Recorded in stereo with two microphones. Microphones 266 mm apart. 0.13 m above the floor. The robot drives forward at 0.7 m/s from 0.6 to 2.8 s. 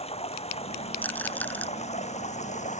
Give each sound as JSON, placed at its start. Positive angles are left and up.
{"t": 0.0, "sound": "running water", "side_deg": 25}
{"t": 1.0, "sound": "a rattle", "side_deg": 5}